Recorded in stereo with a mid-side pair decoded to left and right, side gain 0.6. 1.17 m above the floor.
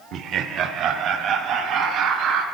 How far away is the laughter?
About 0.6 m.